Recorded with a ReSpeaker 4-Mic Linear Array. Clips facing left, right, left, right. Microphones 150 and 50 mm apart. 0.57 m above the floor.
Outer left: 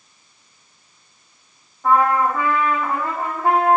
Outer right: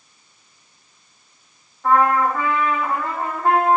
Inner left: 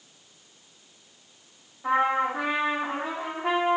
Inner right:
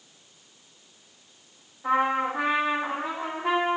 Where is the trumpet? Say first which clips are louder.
Even, even; 10° left (ahead or behind), 4 m.